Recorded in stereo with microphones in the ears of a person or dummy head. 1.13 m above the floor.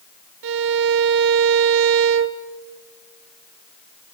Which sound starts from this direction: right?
A violin, at 0.4 s.